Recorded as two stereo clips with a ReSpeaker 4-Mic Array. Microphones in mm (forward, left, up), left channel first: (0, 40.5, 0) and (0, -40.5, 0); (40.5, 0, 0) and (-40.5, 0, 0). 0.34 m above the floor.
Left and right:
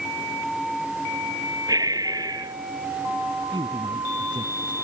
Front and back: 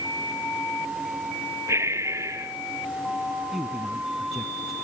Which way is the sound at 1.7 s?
125° right.